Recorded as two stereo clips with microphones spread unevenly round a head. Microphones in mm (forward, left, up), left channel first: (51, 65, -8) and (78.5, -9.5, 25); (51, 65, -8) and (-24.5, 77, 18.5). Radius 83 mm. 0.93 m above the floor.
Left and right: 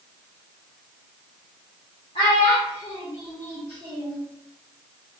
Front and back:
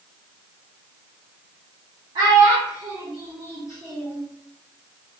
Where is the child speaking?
170° left, 0.8 m; by 4.2 s 120° right, 1.4 m.